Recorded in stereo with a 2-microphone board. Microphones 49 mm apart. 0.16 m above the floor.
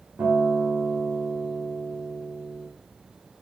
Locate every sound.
0.2 s a guitar: 65° right (ahead or behind), 7.5 m